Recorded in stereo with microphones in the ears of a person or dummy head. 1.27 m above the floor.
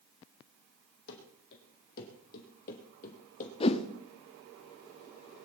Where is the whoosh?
35° left (ahead or behind), 1.1 m.